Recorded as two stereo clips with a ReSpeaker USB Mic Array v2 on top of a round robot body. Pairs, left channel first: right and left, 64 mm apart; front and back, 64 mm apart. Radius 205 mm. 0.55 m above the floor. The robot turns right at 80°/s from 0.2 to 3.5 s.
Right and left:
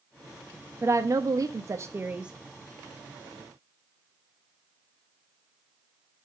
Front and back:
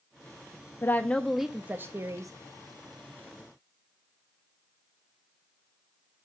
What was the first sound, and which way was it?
A woman speaking, 45° left.